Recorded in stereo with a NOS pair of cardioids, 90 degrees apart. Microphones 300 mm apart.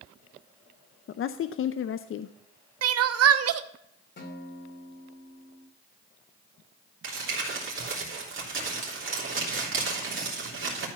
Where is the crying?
55° right, 0.8 m.